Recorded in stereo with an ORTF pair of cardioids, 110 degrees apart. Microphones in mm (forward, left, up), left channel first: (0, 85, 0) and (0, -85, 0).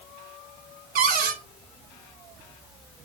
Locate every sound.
0.9 s a cupboard door: 60° right, 2 m